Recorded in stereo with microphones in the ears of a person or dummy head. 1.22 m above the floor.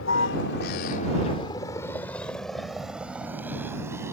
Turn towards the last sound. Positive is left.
turn(degrees=-10)  # may be behind; listen again after turning